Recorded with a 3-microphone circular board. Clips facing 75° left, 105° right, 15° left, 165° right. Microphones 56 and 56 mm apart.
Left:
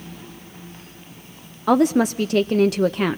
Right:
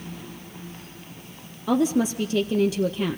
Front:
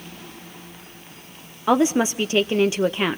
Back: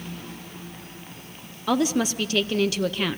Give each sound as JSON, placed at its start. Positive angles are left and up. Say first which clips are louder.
{"t": 1.7, "sound": "a woman speaking", "louder": "left 5 dB, front 4 dB", "azimuth_deg": 80, "distance_m": 0.7}